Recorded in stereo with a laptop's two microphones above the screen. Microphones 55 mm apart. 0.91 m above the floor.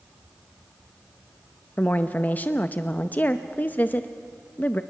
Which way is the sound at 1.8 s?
30° left (ahead or behind).